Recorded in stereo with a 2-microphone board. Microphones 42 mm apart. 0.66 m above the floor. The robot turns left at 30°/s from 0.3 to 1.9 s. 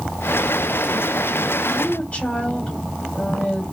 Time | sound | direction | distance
1.7 | a woman speaking | 30° left (ahead or behind) | 2.5 m